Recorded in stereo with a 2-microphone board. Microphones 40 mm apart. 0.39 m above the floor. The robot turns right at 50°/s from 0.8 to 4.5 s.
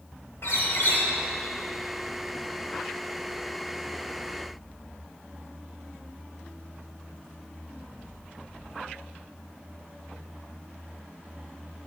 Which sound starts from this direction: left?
A bird, at 0.4 s.